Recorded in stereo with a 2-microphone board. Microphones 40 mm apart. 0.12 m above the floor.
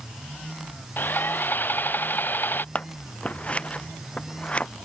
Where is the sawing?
55° left (ahead or behind).